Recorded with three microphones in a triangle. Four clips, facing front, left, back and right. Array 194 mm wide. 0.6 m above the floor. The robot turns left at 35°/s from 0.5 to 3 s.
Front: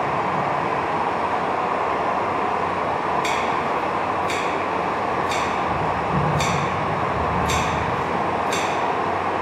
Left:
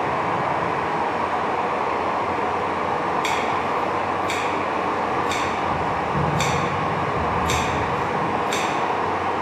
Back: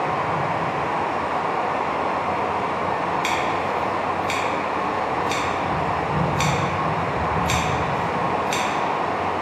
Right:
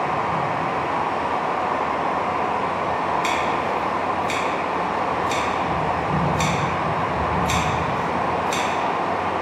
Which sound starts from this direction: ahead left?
Running water, at 0.0 s.